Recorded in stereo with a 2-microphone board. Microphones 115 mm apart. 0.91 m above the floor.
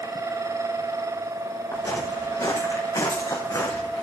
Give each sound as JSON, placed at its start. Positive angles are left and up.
{"t": 1.7, "sound": "footsteps", "side_deg": 25, "distance_m": 6.5}